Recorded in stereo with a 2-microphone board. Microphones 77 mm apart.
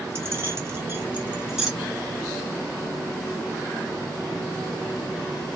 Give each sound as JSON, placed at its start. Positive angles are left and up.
{"t": 0.1, "sound": "keys jangling", "side_deg": -30, "distance_m": 0.9}